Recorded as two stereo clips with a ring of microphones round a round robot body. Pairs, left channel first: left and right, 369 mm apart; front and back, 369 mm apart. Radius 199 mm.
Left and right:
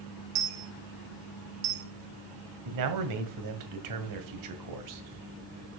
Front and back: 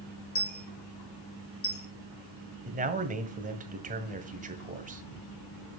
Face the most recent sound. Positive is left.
turn(degrees=-115)